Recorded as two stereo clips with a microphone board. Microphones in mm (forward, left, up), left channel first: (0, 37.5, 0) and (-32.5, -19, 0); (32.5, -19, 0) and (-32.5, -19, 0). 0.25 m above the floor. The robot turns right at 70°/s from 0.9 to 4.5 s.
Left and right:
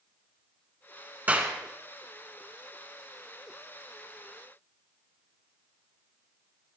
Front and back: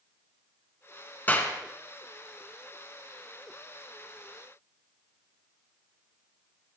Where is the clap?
60° right, 2 m; by 1.6 s 40° right, 2 m.